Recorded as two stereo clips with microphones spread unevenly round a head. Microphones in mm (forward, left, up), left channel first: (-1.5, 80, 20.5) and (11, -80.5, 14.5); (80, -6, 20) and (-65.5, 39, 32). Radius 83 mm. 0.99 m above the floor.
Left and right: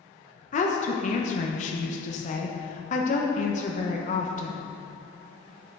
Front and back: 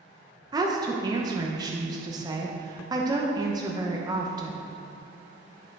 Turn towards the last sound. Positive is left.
turn(degrees=105)